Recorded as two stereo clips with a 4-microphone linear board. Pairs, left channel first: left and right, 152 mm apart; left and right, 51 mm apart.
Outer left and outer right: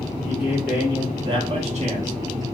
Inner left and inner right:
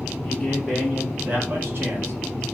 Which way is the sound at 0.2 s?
Centre (ahead or behind).